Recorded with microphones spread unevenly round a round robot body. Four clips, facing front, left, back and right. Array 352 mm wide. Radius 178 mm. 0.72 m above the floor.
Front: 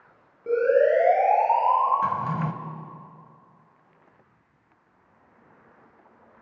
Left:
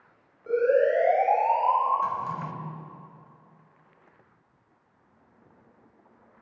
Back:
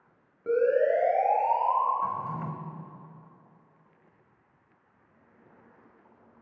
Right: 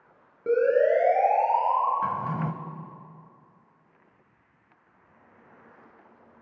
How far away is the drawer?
About 1.9 m.